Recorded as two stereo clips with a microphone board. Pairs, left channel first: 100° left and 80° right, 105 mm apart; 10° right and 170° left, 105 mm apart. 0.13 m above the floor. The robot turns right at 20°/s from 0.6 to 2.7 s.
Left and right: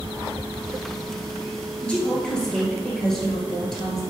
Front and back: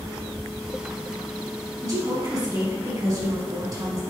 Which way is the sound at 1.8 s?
165° left.